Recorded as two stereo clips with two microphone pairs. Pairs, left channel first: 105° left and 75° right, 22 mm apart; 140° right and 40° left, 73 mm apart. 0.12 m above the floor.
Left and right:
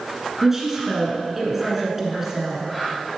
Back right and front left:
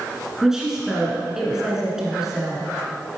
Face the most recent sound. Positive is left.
turn(degrees=-30)